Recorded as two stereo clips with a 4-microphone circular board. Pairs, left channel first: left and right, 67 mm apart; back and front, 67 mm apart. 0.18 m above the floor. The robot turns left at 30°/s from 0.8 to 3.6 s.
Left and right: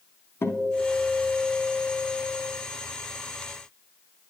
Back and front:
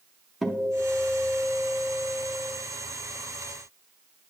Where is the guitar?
95° left, 0.6 m; by 2.5 s 45° left, 0.6 m.